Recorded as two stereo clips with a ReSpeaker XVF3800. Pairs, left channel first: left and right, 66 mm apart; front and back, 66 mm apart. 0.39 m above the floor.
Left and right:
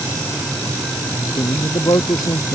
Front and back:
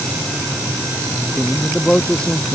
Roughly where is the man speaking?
Left.